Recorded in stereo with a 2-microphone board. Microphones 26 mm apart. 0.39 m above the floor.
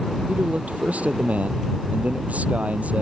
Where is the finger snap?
I don't hear a finger snap.